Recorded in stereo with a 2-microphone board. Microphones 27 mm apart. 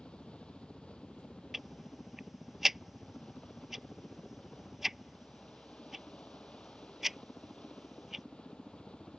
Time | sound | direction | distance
0.0 | a helicopter | 45° left (ahead or behind) | ?
1.5 | ticking | 15° right (ahead or behind) | ?